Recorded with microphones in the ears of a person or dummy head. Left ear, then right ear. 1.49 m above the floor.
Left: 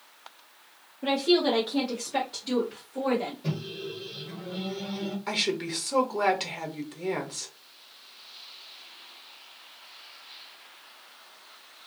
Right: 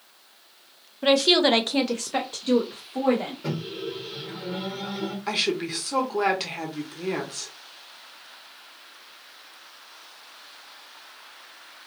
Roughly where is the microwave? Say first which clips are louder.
Right 4 dB; right.